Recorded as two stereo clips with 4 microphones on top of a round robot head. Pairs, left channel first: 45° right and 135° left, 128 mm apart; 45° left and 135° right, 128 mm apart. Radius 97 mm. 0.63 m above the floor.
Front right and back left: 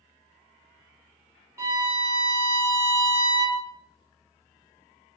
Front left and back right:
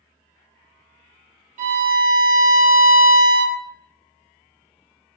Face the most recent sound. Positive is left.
turn(degrees=-155)